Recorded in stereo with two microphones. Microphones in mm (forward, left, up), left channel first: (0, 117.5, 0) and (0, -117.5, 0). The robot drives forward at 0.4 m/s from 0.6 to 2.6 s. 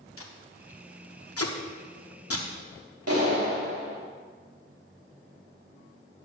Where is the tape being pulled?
65° left (ahead or behind), 1.1 m; by 2.5 s 70° left (ahead or behind), 1.1 m.